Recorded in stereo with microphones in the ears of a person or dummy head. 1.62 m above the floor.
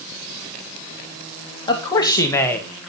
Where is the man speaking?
15° left (ahead or behind), 3 m; by 2.9 s 10° right (ahead or behind), 1.4 m.